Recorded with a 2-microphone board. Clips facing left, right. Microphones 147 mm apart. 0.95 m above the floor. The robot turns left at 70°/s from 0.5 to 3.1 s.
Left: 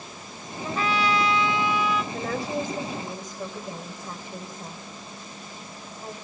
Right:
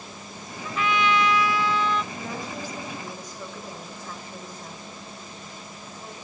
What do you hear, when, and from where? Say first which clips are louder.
0.6 s a trumpet: right 1 dB; 105° left, 0.8 m; by 2.0 s 5° left, 0.8 m
2.1 s a woman speaking: left 6 dB; 90° left, 4 m; by 6.1 s 20° left, 4 m